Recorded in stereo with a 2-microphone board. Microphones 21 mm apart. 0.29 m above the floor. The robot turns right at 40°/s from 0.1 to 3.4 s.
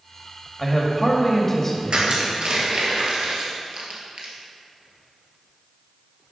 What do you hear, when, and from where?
0.6 s a man speaking: 10° left (ahead or behind), 1.3 m; by 2.2 s 25° left (ahead or behind), 1.3 m
1.9 s crushing: 60° right (ahead or behind), 2 m